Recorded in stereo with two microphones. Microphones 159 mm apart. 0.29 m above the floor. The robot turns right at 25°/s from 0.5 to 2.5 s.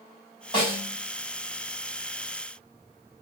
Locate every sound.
0.5 s a snare drum: 30° left (ahead or behind), 1.7 m